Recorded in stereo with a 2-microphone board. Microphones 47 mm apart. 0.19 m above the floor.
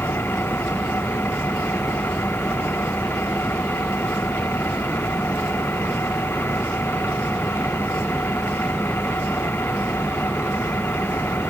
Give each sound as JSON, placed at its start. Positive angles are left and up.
{"t": 0.0, "sound": "an engine running", "side_deg": 55}